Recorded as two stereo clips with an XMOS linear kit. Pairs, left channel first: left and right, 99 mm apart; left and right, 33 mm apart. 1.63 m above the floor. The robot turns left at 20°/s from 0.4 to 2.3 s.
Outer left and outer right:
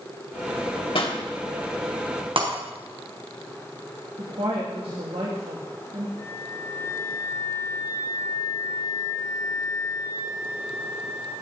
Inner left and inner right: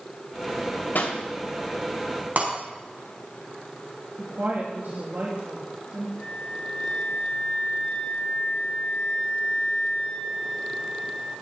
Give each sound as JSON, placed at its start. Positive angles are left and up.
{"t": 0.9, "sound": "a pop", "side_deg": 65, "distance_m": 2.5}
{"t": 2.4, "sound": "breaking glass", "side_deg": -70, "distance_m": 5.0}
{"t": 4.2, "sound": "a woman speaking", "side_deg": -85, "distance_m": 3.0}
{"t": 6.2, "sound": "a flute", "side_deg": 35, "distance_m": 9.5}